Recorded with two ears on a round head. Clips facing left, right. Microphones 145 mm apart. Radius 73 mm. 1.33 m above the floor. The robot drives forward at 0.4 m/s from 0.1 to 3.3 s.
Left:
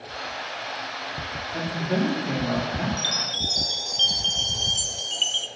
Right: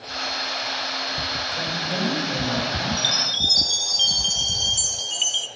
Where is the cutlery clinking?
No cutlery clinking in this recording.